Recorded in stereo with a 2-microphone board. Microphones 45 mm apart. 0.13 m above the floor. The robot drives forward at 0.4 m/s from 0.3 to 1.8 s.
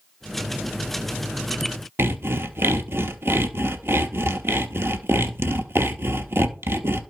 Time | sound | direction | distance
2.0 | sawing | 60° right (ahead or behind) | 0.8 m